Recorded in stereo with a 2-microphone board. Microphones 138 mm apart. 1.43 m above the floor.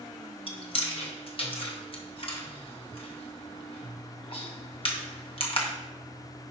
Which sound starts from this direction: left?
Chewing, at 0.5 s.